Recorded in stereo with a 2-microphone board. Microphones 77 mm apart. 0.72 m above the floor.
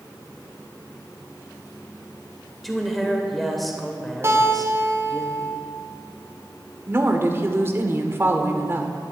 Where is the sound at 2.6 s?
Centre (ahead or behind), 2.5 m.